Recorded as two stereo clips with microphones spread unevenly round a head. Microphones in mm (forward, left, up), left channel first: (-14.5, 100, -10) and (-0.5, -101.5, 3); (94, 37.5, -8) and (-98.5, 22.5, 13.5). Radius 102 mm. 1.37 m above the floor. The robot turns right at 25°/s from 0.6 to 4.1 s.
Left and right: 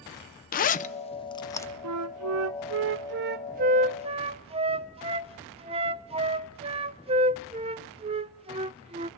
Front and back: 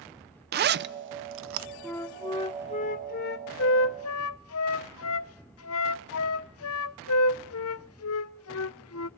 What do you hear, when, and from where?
0.5 s a zipper: 145° left, 0.6 m; by 1.7 s 170° left, 0.6 m
1.8 s a flute: 80° right, 0.6 m; by 9.1 s 20° right, 0.6 m